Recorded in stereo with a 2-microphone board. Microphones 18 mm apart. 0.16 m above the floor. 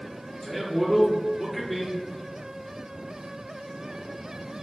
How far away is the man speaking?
About 2.0 m.